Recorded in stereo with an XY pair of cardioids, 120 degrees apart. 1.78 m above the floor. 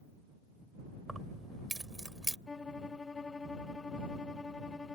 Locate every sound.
1.1 s keys jangling: 15° right; by 2.4 s 10° right
2.5 s a violin: 25° left